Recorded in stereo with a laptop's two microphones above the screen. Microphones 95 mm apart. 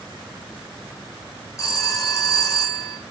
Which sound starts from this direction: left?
A phone ringing, at 1.6 s.